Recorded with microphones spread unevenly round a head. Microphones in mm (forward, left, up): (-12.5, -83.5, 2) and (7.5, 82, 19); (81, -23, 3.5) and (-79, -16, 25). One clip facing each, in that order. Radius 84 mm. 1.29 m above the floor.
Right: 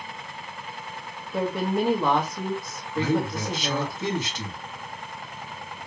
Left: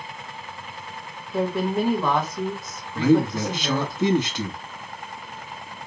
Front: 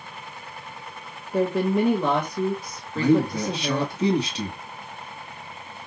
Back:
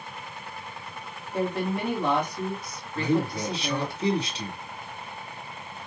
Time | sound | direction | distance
1.3 | a woman speaking | 15° right | 1.8 m
3.0 | a man speaking | 40° left | 1.9 m